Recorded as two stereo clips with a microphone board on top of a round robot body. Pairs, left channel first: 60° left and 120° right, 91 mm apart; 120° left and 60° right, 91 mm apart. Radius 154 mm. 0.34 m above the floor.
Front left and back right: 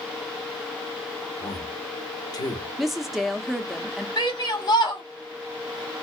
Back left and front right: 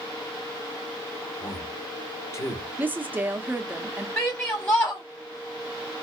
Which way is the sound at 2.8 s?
35° right.